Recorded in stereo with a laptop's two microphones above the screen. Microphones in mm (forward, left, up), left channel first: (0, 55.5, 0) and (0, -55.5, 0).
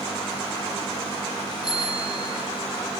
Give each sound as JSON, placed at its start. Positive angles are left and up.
{"t": 1.6, "sound": "a bicycle bell", "side_deg": 40, "distance_m": 3.5}